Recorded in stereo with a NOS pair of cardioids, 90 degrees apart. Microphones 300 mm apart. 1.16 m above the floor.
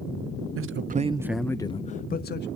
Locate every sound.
0.6 s a man speaking: 50° right, 0.6 m; by 2.5 s 35° left, 1.0 m